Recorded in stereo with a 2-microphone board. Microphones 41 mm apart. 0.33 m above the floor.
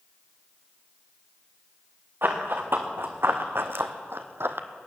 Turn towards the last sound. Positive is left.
turn(degrees=-70)  # may be behind; listen again after turning